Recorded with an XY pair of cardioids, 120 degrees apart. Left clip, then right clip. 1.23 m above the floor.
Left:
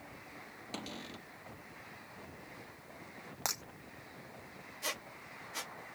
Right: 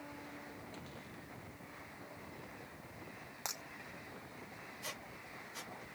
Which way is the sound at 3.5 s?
35° left.